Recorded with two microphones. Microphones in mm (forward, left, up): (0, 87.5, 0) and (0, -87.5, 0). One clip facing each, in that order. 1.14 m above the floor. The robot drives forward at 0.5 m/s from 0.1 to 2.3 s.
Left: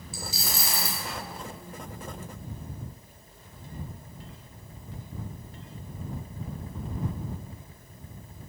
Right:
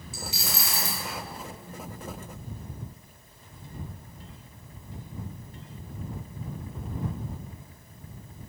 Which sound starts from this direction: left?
A dropped coin, at 0.1 s.